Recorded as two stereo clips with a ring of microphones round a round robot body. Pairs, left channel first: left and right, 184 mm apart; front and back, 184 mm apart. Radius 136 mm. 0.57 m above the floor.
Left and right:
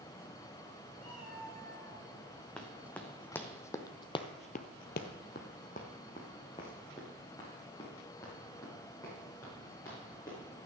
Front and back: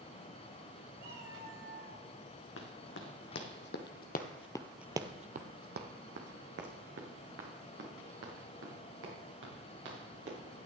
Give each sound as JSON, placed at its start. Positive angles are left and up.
{"t": 1.0, "sound": "a cat meowing", "azimuth_deg": 150, "distance_m": 4.5}
{"t": 2.6, "sound": "running footsteps", "azimuth_deg": 5, "distance_m": 2.5}